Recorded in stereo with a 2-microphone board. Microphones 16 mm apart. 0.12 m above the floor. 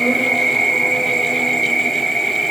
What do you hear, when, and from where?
0.0 s an insect: 50° left (ahead or behind), 5.5 m